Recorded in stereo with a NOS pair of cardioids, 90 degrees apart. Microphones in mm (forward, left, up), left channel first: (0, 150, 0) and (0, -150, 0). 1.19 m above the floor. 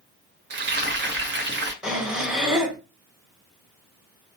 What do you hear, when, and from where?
0.5 s frying: 35° right, 1.0 m
1.8 s breathing: straight ahead, 1.0 m